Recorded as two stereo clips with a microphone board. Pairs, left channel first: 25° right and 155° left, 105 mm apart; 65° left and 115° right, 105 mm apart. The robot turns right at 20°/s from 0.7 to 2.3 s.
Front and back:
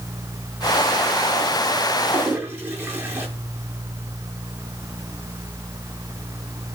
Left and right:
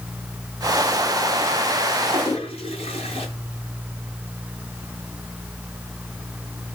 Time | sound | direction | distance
2.1 | a toilet flushing | 85° left | 8 m